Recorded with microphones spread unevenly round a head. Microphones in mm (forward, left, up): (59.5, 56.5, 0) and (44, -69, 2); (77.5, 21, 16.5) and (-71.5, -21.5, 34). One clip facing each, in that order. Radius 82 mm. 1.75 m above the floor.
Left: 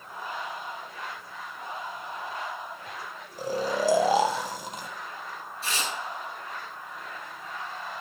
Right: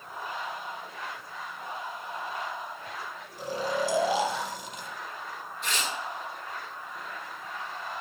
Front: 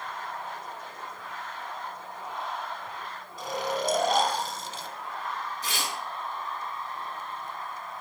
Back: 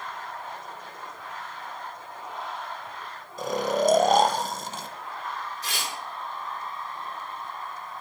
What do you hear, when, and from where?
3.4 s snoring: 145° left, 0.7 m
5.6 s tearing paper: 30° left, 5.5 m